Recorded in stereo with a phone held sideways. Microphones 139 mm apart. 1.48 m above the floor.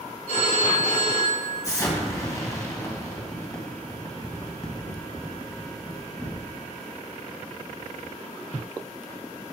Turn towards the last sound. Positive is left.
turn(degrees=20)  # may be behind; listen again after turning